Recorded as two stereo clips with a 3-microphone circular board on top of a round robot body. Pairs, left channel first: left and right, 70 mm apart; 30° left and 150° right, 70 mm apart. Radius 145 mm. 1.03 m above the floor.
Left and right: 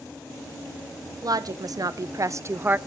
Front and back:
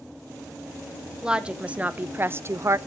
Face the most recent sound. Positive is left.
turn(degrees=-145)